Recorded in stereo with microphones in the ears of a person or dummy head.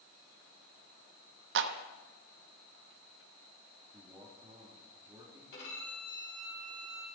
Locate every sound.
1.6 s a clap: 65° right (ahead or behind), 0.9 m
3.9 s a man speaking: 20° right (ahead or behind), 4 m
5.5 s a violin: 65° left (ahead or behind), 4.5 m